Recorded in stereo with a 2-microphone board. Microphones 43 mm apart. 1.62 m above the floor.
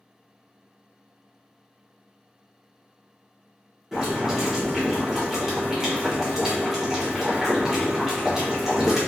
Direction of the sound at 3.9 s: 15° right (ahead or behind).